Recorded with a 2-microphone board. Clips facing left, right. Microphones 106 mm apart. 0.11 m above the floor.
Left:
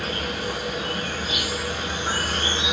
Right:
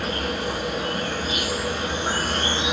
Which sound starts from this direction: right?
An insect, at 0.0 s.